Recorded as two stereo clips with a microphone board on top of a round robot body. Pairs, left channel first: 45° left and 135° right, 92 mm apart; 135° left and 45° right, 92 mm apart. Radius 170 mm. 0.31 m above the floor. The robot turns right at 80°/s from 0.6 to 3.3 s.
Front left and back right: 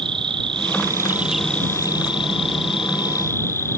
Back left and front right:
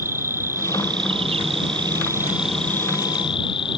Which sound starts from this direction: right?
An insect, at 0.0 s.